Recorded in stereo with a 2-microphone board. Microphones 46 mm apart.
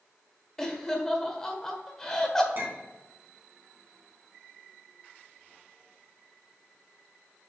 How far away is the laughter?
About 1.4 m.